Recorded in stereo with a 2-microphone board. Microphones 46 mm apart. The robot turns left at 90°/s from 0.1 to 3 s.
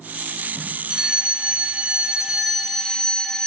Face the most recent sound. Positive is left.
turn(degrees=20)  # may be behind; listen again after turning